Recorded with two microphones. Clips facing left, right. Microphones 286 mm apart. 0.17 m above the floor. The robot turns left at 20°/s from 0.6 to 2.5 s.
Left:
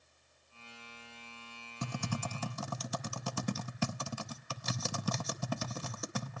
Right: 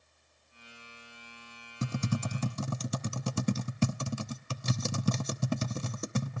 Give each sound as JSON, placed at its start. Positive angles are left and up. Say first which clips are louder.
{"t": 1.8, "sound": "typing on a keyboard", "louder": "right 6 dB", "side_deg": -20, "distance_m": 0.6}